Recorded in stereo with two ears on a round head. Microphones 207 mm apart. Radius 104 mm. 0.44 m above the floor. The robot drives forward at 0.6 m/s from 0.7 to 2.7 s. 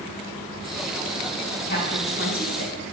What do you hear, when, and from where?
1.6 s a woman speaking: 45° left (ahead or behind), 3 m; by 2.8 s 40° left (ahead or behind), 3.5 m